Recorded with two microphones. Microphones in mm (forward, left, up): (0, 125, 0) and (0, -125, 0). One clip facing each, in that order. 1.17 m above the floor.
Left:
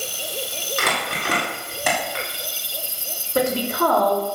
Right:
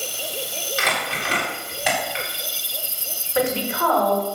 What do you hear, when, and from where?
0.8 s crumpling: 55° left (ahead or behind), 3.5 m
3.4 s a woman speaking: 45° left (ahead or behind), 3.5 m